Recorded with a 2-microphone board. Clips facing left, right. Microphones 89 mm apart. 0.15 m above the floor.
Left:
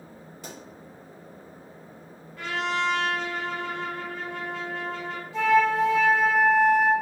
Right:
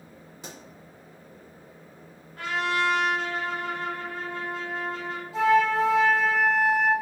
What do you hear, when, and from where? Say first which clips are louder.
0.4 s a pop: left 1 dB; 20° right (ahead or behind), 1.5 m
2.4 s a trumpet: right 1 dB; 50° right (ahead or behind), 1.5 m
5.3 s a flute: even; 45° right (ahead or behind), 1.1 m